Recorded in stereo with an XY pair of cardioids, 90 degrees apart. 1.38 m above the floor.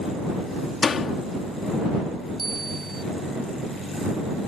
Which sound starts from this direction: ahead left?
A door slam, at 0.8 s.